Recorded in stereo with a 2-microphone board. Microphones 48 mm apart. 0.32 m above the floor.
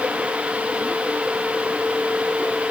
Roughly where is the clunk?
I don't hear a clunk.